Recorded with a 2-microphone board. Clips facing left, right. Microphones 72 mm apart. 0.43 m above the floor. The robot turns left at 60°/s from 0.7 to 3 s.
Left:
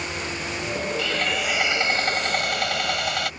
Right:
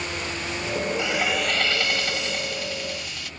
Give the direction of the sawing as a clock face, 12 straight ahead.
5 o'clock.